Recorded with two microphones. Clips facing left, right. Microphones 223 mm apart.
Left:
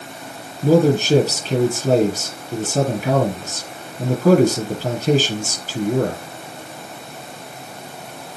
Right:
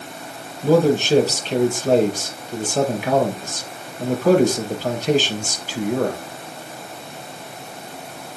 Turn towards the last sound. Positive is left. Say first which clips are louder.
# left 1 dB
turn(degrees=40)  # may be behind; listen again after turning